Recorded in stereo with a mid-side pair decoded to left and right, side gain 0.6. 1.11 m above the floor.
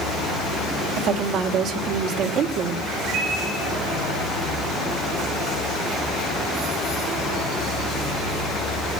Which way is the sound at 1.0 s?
70° right.